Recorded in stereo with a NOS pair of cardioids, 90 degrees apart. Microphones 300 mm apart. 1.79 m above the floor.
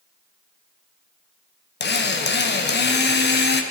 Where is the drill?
35° left, 1.5 m.